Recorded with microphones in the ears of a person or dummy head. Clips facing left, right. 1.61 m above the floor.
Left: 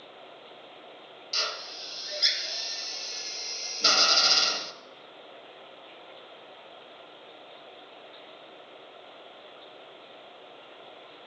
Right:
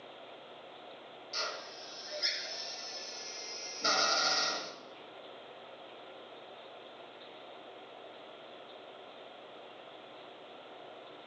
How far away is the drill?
About 1.3 m.